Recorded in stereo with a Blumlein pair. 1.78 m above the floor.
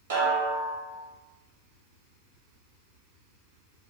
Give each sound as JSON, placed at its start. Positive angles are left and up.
{"t": 0.1, "sound": "a snare drum", "azimuth_deg": -65, "distance_m": 1.3}